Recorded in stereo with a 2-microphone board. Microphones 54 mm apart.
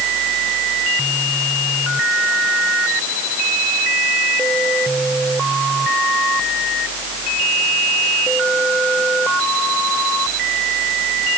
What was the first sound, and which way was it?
Only background noise.